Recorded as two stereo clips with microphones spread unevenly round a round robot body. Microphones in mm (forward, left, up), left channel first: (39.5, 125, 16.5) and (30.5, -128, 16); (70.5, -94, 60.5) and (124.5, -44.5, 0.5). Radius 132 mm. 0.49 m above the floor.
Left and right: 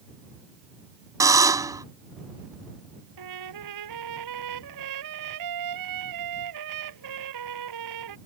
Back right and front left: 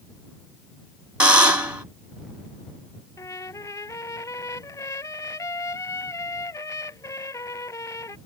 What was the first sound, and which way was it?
A buzzer, 15° right.